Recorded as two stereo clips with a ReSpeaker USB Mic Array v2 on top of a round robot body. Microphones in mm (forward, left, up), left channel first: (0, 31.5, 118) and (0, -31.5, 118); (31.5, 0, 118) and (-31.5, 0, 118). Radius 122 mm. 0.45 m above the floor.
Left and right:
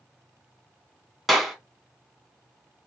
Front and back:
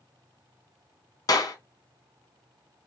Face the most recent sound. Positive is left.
turn(degrees=-5)